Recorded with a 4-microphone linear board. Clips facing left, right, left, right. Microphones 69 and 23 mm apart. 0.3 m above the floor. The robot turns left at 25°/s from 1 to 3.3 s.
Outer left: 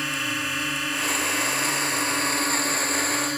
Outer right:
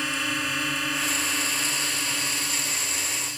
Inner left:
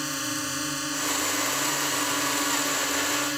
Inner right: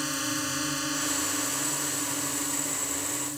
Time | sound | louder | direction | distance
0.0 | a drone | even, even | straight behind | ?